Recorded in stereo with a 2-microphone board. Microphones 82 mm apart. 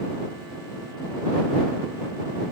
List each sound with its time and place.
Only background noise.